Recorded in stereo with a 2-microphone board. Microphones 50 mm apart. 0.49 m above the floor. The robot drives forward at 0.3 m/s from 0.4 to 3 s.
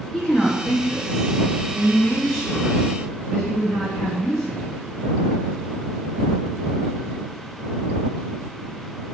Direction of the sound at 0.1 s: 10° left (ahead or behind).